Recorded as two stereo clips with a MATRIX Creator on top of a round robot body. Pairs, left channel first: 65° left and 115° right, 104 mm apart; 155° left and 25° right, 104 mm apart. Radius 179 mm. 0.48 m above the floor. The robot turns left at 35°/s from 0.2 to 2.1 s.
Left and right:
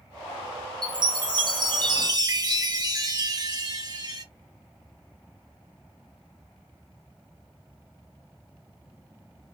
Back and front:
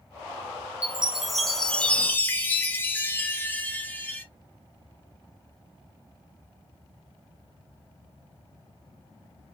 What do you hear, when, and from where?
0.8 s a chime: 95° right, 1.4 m; by 4.2 s 140° right, 1.4 m